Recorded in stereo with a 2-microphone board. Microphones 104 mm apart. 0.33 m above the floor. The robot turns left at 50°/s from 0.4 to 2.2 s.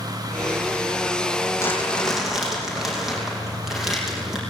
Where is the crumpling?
30° left, 6 m; by 4.4 s 5° right, 6 m.